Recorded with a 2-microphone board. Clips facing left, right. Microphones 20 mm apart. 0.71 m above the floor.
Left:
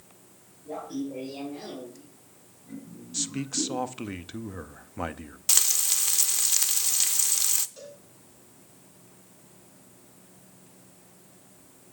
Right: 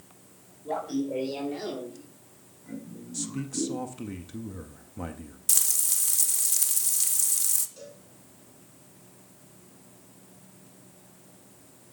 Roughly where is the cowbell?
Centre.